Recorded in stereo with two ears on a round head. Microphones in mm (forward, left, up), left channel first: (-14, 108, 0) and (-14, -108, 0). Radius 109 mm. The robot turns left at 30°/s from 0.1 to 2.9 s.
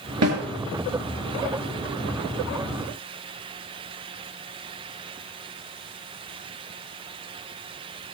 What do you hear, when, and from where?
0.2 s a snare drum: 80° right, 4.5 m